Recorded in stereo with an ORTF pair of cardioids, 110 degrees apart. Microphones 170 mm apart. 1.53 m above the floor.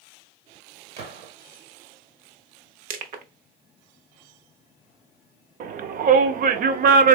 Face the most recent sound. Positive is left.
turn(degrees=-55)